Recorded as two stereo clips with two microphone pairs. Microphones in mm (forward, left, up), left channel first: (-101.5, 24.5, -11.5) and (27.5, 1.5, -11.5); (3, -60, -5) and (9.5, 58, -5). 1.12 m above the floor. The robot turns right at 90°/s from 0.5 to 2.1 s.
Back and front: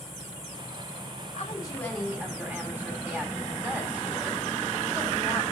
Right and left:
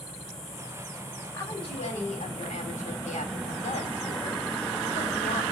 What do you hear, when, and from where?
1.3 s a woman speaking: 155° right, 3 m; by 5.4 s 90° right, 3 m